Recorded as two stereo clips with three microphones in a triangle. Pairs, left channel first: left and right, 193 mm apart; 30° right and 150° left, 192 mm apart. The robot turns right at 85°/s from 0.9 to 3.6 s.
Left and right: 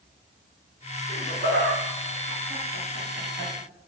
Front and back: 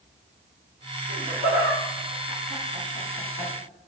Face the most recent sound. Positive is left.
turn(degrees=-35)